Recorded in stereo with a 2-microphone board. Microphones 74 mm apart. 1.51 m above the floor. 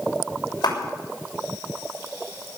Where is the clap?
85° left, 6.5 m.